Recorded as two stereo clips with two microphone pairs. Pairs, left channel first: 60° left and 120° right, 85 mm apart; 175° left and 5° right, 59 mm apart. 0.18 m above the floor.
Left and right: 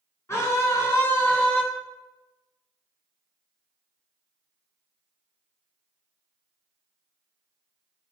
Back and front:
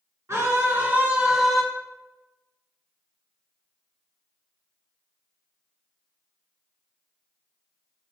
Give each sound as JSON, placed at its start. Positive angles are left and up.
{"t": 0.3, "sound": "a scream", "azimuth_deg": 15, "distance_m": 1.8}